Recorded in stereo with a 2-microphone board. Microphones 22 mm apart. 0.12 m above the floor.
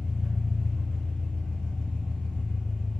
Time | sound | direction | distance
0.0 | an engine running | 70° left (ahead or behind) | 0.9 m